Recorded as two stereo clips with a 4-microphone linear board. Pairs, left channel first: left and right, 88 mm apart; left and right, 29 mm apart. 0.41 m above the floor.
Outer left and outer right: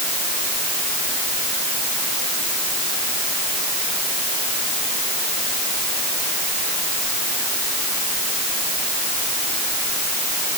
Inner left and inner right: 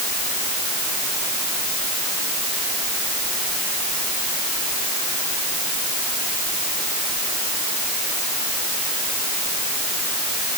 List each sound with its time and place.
Only background noise.